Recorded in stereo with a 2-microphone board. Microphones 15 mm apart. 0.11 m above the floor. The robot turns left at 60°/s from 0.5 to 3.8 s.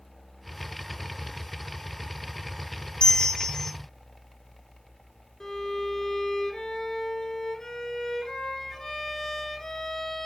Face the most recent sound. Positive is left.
turn(degrees=35)  # may be behind; listen again after turning